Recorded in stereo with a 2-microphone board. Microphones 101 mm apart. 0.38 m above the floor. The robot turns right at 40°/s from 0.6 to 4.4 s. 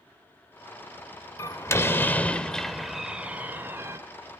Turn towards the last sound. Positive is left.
turn(degrees=-115)